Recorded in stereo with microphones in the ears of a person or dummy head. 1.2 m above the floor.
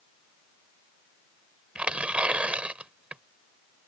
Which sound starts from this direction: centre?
Tearing paper, at 1.8 s.